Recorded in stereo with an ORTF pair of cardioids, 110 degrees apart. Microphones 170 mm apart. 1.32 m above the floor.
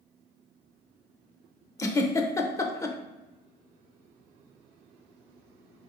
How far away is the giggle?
About 0.5 m.